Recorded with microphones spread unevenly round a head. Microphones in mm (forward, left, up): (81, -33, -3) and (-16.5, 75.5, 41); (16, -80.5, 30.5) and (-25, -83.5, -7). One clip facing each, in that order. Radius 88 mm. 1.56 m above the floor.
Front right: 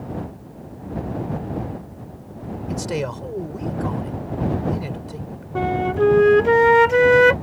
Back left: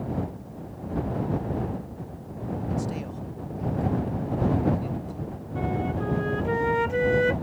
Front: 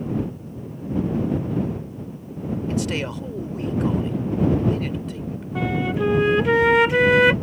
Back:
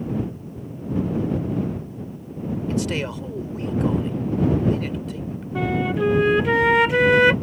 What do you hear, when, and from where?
2.7 s a man speaking: 70° right
5.5 s a flute: 55° right